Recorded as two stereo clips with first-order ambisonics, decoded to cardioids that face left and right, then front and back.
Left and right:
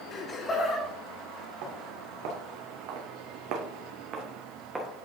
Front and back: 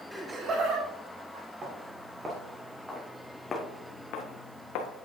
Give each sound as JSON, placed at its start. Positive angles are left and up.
{"t": 0.1, "sound": "laughter", "azimuth_deg": 85, "distance_m": 0.9}
{"t": 1.6, "sound": "footsteps", "azimuth_deg": -115, "distance_m": 3.5}